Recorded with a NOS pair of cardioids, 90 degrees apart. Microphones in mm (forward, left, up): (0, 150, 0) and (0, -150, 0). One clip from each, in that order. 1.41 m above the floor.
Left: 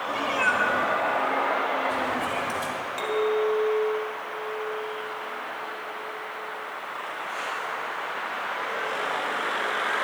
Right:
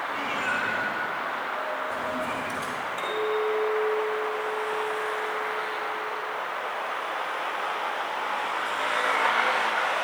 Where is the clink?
40° left, 3 m.